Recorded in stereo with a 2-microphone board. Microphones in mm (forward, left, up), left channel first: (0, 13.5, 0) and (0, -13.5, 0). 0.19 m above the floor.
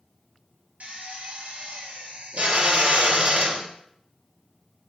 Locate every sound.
0.8 s a drill: 65° right (ahead or behind), 2.5 m